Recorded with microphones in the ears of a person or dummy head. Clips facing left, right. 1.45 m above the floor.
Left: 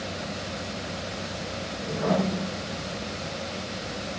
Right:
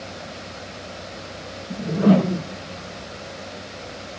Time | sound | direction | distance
1.7 | a whoosh | 40° right (ahead or behind) | 0.6 m